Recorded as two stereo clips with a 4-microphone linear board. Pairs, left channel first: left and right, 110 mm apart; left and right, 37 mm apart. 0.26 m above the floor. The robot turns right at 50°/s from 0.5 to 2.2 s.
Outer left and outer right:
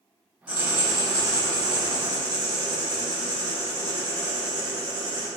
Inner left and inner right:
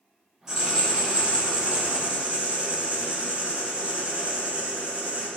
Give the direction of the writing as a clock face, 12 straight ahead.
5 o'clock.